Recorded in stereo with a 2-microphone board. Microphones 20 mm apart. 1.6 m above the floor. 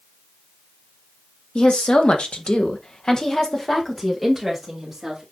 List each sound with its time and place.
1.6 s a woman speaking: 70° left (ahead or behind), 2 m; by 5.2 s centre (ahead or behind), 3.5 m